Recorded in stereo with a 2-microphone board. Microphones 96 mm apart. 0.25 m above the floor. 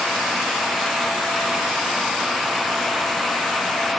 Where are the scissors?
I don't hear scissors.